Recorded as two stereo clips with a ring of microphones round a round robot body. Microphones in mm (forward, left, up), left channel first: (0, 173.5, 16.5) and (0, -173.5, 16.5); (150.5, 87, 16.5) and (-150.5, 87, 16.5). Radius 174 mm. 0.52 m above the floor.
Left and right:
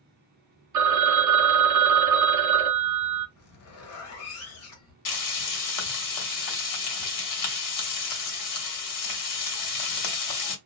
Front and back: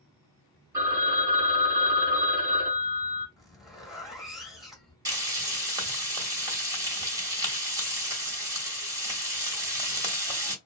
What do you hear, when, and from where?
0.7 s a phone ringing: 105° right, 0.8 m
3.4 s a zipper: 90° left, 1.0 m
5.0 s frying: 105° left, 0.9 m